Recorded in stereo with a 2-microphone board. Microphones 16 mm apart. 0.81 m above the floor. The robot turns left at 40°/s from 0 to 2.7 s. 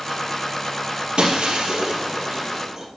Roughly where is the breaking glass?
Right.